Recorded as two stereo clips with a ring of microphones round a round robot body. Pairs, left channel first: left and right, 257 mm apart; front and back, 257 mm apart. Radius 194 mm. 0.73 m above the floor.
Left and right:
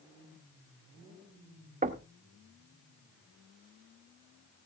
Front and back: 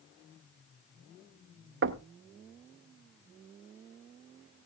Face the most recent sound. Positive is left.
turn(degrees=-150)